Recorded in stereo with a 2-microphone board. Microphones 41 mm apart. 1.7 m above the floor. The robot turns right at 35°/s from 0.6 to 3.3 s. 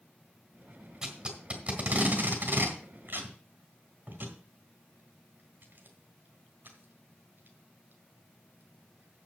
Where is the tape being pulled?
15° right (ahead or behind), 3 m; by 9.3 s 60° right (ahead or behind), 3 m.